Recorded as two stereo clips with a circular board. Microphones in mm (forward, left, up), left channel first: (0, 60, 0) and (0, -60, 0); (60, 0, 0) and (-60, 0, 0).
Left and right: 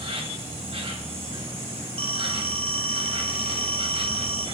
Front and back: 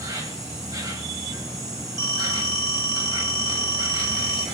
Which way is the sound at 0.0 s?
125° right.